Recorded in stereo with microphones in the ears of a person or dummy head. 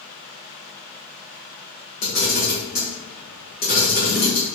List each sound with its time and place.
2.0 s a camera shutter: 40° left (ahead or behind), 1.0 m